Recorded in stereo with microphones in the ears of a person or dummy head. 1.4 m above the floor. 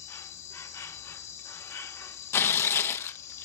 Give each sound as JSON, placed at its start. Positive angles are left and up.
{"t": 0.0, "sound": "an insect", "side_deg": 15, "distance_m": 1.3}
{"t": 2.3, "sound": "tearing paper", "side_deg": 15, "distance_m": 0.9}